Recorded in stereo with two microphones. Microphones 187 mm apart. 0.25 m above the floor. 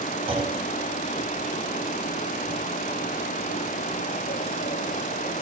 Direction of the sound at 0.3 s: 30° right (ahead or behind).